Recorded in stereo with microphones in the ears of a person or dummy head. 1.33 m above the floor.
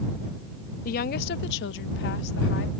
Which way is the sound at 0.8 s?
45° left (ahead or behind).